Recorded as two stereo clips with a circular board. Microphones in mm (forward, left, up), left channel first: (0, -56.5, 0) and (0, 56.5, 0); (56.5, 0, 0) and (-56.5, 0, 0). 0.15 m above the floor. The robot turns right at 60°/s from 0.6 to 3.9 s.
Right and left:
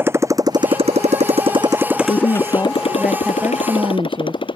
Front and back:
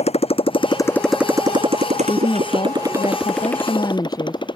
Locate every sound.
0.0 s a motorcycle: 20° left; by 4.6 s 45° right
2.0 s a woman speaking: 60° right; by 4.4 s 50° left